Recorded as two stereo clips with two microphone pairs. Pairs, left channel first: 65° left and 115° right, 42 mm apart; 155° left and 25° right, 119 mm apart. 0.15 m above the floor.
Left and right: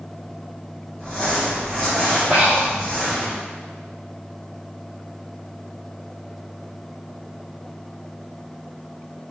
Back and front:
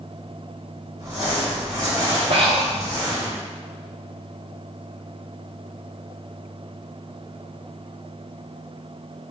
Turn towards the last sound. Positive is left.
turn(degrees=-60)